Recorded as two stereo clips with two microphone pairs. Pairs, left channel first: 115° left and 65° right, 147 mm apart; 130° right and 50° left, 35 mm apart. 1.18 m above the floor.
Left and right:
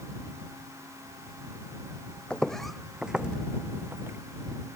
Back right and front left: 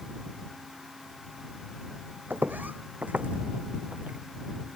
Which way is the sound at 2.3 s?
35° left.